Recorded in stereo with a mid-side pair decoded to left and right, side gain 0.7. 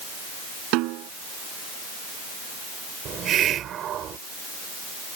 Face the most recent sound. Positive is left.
turn(degrees=-45)